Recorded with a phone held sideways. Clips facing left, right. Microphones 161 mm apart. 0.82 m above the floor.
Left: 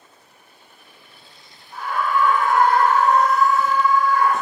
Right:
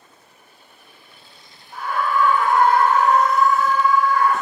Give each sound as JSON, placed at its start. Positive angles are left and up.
{"t": 1.7, "sound": "a scream", "side_deg": -40, "distance_m": 1.8}